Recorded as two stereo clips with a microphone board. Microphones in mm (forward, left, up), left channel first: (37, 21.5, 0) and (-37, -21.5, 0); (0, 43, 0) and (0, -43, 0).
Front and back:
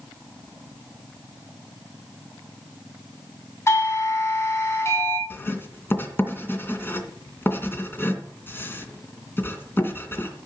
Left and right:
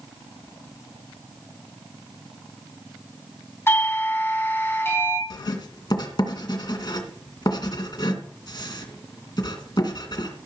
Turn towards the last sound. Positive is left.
turn(degrees=90)